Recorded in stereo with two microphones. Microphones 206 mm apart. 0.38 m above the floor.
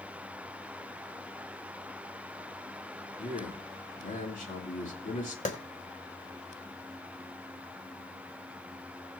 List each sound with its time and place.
3.2 s a man speaking: 45° left (ahead or behind), 3 m
5.5 s a clap: 35° left (ahead or behind), 2 m